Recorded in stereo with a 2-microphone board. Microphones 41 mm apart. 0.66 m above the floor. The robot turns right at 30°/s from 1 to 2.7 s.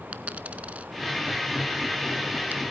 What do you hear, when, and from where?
0.1 s a dropped coin: 35° right (ahead or behind), 0.7 m; by 2.6 s 45° right (ahead or behind), 0.7 m